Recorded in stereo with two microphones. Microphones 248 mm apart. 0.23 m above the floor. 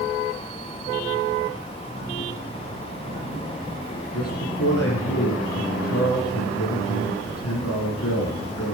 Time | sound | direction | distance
4.1 | a man speaking | 70° left (ahead or behind) | 10 m